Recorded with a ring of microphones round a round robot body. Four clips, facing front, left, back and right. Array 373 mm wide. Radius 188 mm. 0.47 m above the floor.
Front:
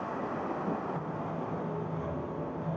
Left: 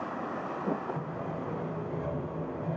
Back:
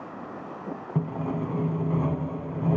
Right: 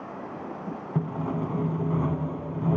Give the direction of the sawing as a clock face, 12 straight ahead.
4 o'clock.